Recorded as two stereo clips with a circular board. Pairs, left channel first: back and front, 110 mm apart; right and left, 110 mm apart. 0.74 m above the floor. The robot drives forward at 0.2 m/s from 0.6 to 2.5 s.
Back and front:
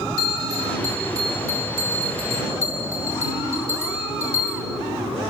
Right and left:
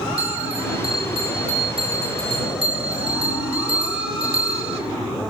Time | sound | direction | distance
0.2 | a bell | 55° left | 3 m